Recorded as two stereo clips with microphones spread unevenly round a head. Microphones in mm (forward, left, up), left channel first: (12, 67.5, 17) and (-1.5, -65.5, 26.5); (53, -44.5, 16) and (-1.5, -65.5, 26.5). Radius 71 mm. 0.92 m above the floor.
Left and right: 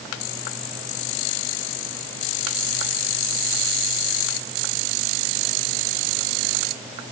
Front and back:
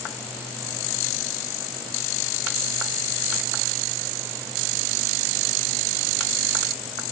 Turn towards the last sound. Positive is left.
No sound to turn to.